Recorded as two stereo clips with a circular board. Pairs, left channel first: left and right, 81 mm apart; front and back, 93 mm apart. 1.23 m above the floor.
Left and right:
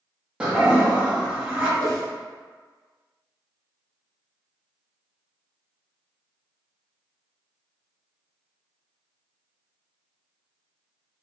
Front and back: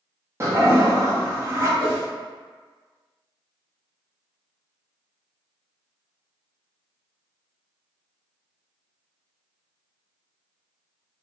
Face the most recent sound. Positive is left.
turn(degrees=-130)